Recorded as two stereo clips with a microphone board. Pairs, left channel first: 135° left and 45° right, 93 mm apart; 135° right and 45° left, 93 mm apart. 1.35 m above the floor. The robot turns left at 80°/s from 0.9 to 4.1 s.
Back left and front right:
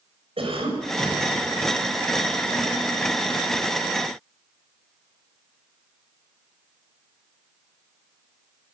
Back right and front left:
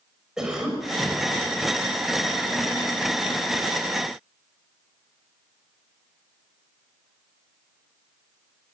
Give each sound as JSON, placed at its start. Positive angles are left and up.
{"t": 0.4, "sound": "a cough", "azimuth_deg": -35, "distance_m": 6.0}